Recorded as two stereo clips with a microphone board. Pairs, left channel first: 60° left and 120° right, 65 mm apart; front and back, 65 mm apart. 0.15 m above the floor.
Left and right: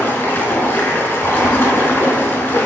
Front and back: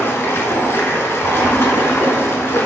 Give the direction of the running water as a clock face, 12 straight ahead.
11 o'clock.